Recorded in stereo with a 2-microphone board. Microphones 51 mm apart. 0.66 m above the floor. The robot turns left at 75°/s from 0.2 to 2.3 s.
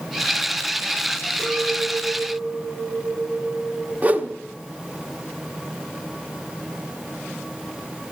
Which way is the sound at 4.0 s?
35° right (ahead or behind).